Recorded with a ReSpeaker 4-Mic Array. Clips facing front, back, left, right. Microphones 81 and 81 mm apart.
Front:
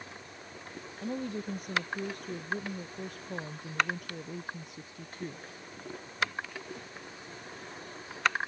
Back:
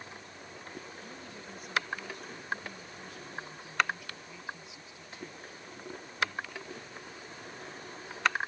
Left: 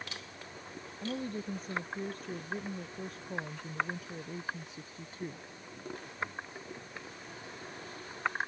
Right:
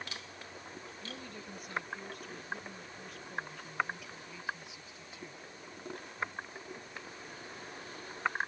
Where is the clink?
No clink in this recording.